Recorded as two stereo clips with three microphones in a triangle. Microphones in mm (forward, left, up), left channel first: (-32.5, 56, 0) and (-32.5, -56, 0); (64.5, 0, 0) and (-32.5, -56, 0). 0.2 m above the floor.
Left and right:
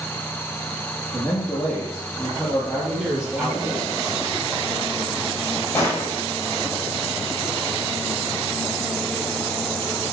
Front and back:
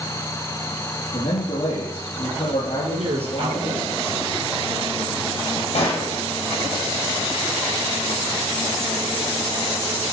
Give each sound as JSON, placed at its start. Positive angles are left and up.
{"t": 1.1, "sound": "a man speaking", "azimuth_deg": 25, "distance_m": 5.0}
{"t": 2.9, "sound": "a man speaking", "azimuth_deg": -170, "distance_m": 5.0}
{"t": 5.8, "sound": "a gunshot", "azimuth_deg": 20, "distance_m": 6.5}